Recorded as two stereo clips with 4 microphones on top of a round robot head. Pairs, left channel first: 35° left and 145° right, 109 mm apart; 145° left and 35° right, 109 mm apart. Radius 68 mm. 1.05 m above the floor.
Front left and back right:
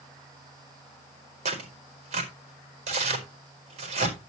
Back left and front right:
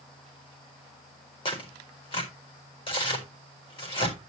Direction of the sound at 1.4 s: 175° right.